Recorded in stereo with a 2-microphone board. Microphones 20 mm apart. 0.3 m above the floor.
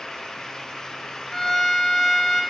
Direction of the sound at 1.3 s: 25° left (ahead or behind).